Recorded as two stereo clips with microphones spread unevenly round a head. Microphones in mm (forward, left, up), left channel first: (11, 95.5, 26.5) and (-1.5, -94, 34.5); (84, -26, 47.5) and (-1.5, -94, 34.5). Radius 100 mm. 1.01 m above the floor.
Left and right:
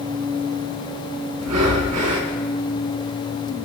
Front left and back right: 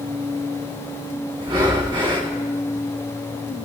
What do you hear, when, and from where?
1.4 s breathing: 95° right, 3.5 m